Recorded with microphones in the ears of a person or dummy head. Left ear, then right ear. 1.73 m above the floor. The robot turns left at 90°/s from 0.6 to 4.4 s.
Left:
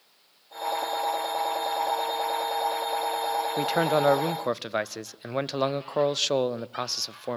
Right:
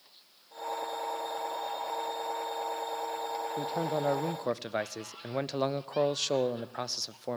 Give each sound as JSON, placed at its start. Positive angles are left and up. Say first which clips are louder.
{"t": 3.6, "sound": "a man speaking", "louder": "left 9 dB", "azimuth_deg": 90, "distance_m": 0.5}